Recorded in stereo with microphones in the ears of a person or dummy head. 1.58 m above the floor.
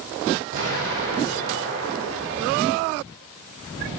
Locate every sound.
0.5 s an explosion: 65° right (ahead or behind), 2.0 m